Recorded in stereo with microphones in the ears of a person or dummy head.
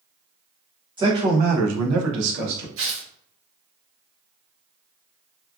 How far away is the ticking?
No ticking in this recording.